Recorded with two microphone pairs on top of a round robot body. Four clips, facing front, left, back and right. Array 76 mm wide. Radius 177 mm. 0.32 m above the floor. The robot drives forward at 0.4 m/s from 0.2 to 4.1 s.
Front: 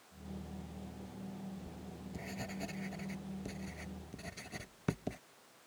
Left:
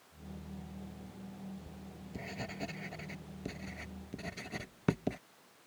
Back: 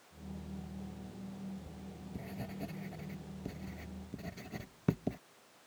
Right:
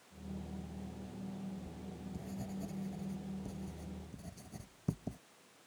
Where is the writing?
60° left; by 5.2 s 70° left.